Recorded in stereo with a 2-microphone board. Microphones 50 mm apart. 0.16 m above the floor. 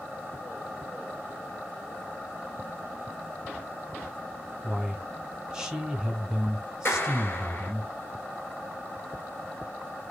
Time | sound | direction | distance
4.6 | a man speaking | 15° right (ahead or behind) | 1.3 m
6.8 | a clap | 45° left (ahead or behind) | 2 m